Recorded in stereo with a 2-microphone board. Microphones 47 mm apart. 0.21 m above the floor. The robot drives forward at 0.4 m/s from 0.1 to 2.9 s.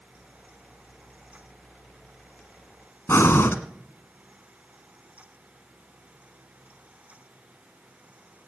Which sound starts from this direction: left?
Breathing, at 3.1 s.